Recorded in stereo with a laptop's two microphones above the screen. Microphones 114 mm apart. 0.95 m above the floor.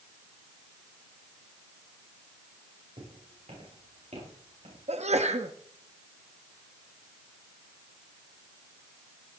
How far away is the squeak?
I don't hear a squeak.